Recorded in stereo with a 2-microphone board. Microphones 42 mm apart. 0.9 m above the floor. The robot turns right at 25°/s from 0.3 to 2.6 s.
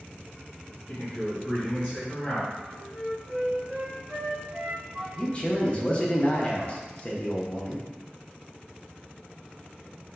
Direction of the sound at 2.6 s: 20° right (ahead or behind).